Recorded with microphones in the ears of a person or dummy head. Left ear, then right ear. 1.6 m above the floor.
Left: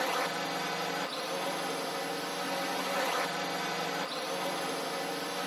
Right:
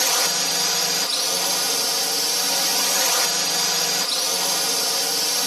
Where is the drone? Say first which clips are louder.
Right 10 dB; 80° right.